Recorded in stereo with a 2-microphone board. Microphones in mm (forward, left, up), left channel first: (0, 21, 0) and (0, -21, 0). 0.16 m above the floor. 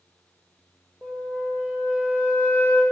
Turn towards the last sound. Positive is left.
turn(degrees=-45)  # may be behind; listen again after turning